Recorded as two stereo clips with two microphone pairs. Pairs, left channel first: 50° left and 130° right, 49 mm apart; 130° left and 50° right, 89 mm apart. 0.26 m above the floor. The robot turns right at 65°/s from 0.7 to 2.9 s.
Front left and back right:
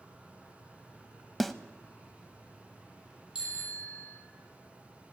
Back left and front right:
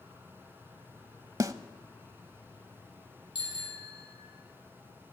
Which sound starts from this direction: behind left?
A bicycle bell, at 3.4 s.